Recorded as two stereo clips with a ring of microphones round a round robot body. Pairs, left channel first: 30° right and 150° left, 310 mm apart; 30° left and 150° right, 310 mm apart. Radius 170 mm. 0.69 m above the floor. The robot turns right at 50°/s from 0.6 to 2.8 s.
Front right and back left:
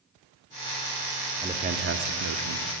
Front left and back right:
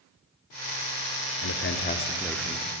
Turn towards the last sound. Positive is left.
turn(degrees=140)